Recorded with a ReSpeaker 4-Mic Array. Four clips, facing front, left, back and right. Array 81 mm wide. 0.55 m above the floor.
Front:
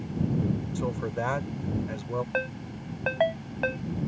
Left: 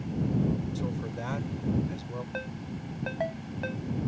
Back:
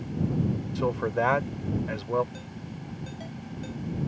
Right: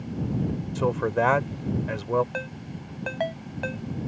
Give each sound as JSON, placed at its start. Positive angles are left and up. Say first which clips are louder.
{"t": 0.8, "sound": "a man speaking", "louder": "right 10 dB, back 4 dB", "azimuth_deg": -110}
{"t": 2.3, "sound": "a ringtone", "louder": "right 2 dB, front 9 dB", "azimuth_deg": -15}